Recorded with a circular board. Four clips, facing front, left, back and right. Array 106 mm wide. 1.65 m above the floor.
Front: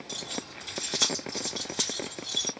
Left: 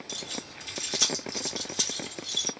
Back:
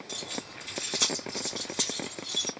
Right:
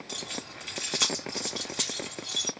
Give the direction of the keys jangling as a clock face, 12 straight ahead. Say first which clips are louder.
Right 1 dB, front 1 dB; 3 o'clock.